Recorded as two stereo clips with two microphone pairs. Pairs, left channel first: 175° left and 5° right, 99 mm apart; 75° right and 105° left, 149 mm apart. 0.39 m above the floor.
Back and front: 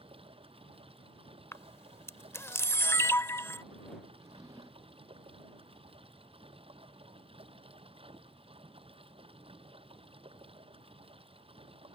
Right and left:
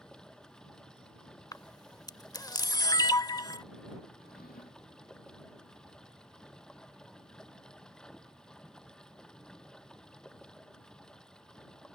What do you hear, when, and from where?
0.0 s running water: 15° left
1.5 s a camera shutter: 130° right
4.2 s a drawer: 60° right